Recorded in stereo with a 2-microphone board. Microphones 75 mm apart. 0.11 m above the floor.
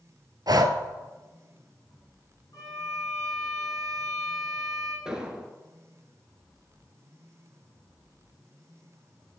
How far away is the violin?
About 2.5 m.